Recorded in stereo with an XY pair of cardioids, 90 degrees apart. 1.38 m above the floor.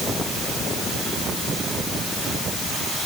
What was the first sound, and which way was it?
Only background noise.